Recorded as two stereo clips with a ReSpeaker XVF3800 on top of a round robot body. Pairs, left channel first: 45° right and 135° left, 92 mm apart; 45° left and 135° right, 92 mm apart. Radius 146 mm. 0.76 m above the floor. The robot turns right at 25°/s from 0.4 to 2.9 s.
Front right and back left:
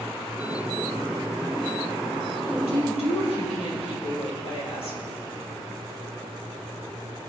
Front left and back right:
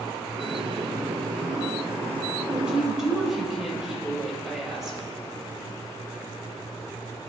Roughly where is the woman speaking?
Ahead right.